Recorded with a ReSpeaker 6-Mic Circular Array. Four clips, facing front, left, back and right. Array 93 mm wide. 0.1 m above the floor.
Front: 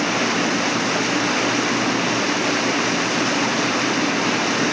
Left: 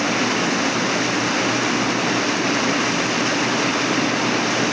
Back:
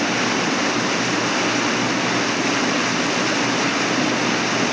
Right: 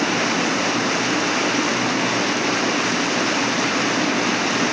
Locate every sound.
Only background noise.